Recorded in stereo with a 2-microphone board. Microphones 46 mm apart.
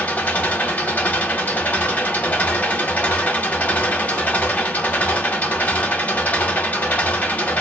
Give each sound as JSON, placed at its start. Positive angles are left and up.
{"t": 0.0, "sound": "an engine running", "side_deg": 40, "distance_m": 0.9}